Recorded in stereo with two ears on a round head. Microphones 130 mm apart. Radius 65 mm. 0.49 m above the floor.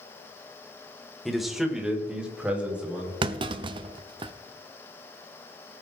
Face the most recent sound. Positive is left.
turn(degrees=-35)  # may be behind; listen again after turning